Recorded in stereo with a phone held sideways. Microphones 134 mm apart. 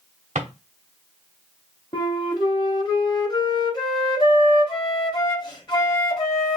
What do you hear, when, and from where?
0.3 s a drawer: 60° right (ahead or behind), 1.0 m
1.9 s a flute: 35° left (ahead or behind), 1.1 m